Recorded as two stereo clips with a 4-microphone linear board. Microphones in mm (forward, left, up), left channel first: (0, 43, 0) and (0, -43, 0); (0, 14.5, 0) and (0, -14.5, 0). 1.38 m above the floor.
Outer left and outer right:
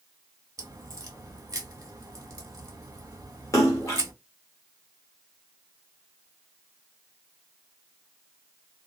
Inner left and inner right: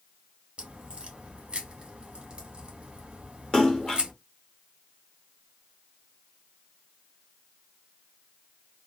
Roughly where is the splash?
Left.